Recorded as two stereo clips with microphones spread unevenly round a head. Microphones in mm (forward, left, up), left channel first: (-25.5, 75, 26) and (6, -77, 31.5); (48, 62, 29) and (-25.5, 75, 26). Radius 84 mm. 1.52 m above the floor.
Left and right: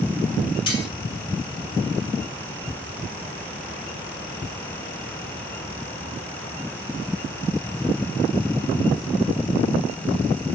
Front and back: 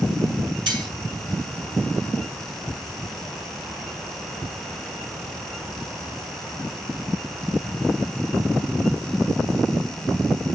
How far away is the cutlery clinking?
About 2.5 m.